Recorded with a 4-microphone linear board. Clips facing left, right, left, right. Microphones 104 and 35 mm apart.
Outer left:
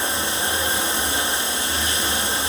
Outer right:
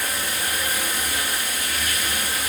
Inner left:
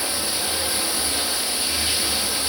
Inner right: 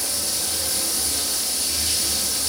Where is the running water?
25° left (ahead or behind), 1.1 m.